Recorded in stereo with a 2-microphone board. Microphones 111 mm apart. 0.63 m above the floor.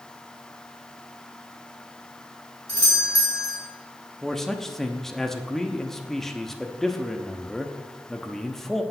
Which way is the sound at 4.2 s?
5° left (ahead or behind).